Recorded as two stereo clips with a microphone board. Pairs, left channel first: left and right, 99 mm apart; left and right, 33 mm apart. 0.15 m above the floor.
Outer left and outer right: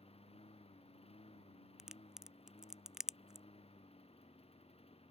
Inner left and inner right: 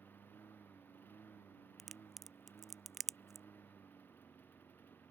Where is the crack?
5° right (ahead or behind).